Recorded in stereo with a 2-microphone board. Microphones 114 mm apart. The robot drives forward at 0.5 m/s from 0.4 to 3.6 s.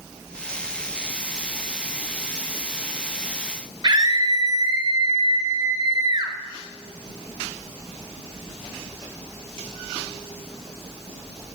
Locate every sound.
3.8 s a scream: 35° right (ahead or behind), 1.3 m